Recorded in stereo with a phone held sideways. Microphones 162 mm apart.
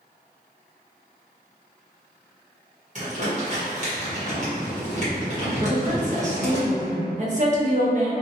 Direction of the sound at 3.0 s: 45° right (ahead or behind).